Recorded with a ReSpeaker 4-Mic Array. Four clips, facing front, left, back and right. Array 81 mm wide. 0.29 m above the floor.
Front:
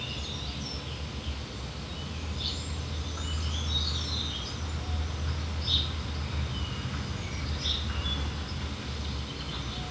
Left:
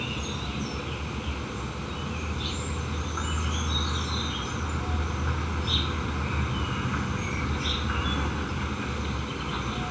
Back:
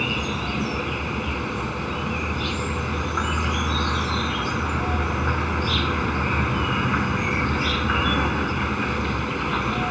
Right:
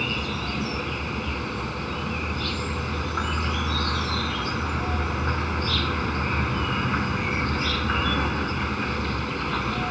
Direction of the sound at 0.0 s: 160° right.